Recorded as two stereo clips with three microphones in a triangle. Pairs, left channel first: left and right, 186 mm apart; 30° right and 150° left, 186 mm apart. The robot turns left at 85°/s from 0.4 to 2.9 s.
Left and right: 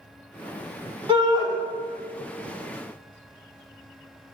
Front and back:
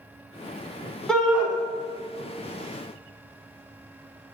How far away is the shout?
About 1.2 m.